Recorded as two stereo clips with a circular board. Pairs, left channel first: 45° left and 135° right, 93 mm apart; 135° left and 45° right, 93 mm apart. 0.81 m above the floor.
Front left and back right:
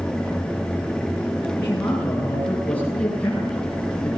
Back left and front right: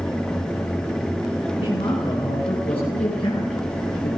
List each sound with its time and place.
1.6 s a man speaking: 110° left, 9.5 m; by 4.1 s 130° left, 11 m